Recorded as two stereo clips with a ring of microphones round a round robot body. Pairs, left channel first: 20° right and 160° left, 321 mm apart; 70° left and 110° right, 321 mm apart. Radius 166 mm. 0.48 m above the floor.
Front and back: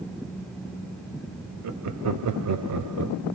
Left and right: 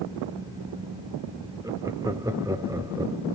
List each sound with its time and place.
1.6 s laughter: 170° left, 1.0 m